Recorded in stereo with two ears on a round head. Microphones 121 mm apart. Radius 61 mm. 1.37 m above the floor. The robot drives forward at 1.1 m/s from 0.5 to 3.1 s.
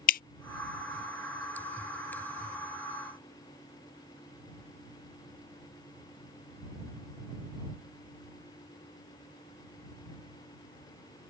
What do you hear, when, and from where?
0.1 s dripping: 70° left (ahead or behind)